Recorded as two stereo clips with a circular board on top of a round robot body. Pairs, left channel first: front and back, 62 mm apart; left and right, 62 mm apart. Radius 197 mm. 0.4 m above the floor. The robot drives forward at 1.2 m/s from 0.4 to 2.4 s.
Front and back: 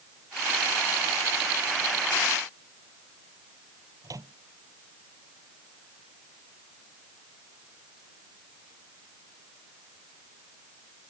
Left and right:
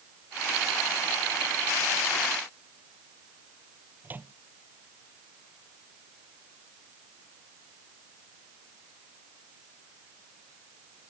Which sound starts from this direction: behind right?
A microwave, at 4.0 s.